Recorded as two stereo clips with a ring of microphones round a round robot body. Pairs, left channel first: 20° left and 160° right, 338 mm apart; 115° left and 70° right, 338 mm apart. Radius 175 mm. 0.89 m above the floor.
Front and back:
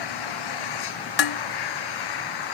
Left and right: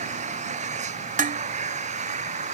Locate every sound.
0.0 s an engine running: 5° left
1.2 s dishes clattering: straight ahead